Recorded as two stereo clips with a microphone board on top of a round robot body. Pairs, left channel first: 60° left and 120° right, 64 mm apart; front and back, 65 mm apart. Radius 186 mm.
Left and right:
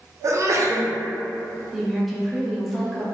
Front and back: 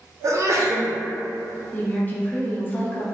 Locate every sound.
0.2 s a sneeze: 150° right, 0.8 m
1.7 s a woman speaking: 30° right, 1.0 m